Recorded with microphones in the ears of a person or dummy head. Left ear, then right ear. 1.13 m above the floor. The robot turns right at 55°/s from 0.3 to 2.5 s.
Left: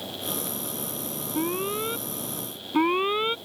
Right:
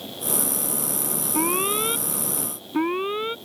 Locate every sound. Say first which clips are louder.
1.3 s an alarm: right 4 dB; 50° right; by 3.4 s 15° left